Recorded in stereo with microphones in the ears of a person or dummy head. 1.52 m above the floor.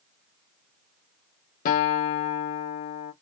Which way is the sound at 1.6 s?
50° left (ahead or behind).